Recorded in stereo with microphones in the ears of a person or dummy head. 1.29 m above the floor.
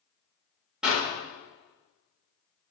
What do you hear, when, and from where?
0.8 s a clap: centre (ahead or behind), 4 m